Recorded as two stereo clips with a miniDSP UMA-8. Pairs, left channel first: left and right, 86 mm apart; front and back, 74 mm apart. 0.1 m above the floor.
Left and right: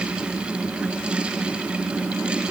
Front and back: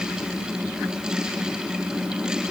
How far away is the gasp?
I don't hear a gasp.